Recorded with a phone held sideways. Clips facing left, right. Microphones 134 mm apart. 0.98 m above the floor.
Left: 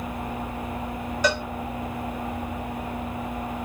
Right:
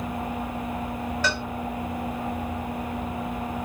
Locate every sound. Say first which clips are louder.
1.2 s a cowbell: left 7 dB; 15° left (ahead or behind), 0.8 m